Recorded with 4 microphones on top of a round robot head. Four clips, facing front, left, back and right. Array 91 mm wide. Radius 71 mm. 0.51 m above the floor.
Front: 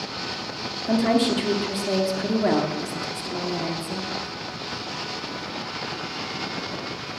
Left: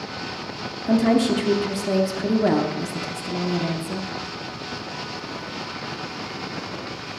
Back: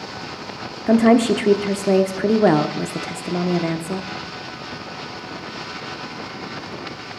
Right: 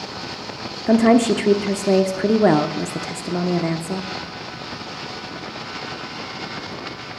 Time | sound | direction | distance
0.9 | a woman speaking | 135° right | 0.9 m